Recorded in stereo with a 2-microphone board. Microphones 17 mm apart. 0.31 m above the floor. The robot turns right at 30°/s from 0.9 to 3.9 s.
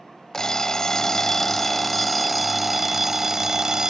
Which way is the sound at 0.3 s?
135° left.